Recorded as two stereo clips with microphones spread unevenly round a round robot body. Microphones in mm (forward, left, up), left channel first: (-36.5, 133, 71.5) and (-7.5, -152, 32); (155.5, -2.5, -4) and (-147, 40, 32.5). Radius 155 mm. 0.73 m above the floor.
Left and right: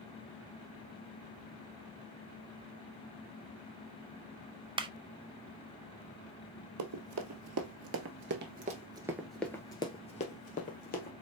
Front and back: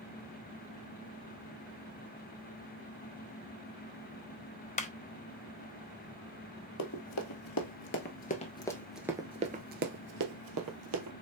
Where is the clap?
40° right, 0.7 m.